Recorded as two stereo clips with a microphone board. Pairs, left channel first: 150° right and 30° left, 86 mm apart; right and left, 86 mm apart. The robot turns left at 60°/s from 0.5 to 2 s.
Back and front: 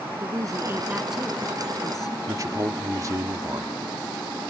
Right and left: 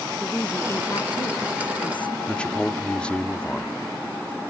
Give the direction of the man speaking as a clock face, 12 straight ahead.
12 o'clock.